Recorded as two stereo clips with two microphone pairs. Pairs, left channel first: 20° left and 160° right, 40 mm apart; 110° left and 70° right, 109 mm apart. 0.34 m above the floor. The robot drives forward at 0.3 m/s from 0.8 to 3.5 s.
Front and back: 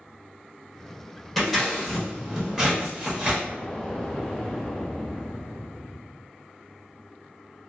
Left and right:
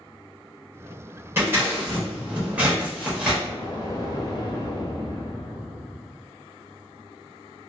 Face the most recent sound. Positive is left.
turn(degrees=100)